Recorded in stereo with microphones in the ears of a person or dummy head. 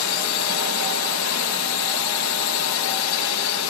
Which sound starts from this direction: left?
A drone, at 0.0 s.